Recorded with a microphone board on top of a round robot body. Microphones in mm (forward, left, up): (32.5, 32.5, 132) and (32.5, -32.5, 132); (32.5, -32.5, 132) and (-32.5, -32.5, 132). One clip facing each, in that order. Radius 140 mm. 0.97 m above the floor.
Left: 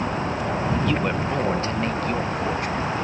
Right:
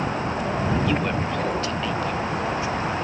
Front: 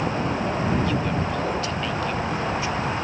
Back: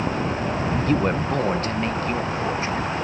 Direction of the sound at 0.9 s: 170° right.